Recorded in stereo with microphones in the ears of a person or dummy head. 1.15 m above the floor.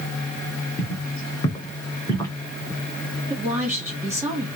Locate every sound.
0.8 s footsteps: 25° left (ahead or behind), 3 m; by 2.3 s 20° left (ahead or behind), 3.5 m
3.3 s a woman speaking: 10° right (ahead or behind), 1.9 m